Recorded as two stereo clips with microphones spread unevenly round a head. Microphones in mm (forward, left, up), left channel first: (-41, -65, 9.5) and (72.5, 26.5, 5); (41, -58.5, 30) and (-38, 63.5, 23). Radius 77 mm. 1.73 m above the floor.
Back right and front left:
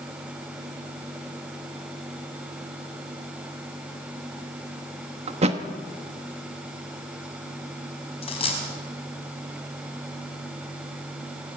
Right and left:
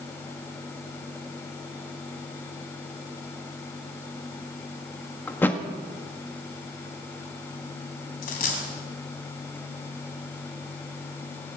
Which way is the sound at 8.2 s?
90° right.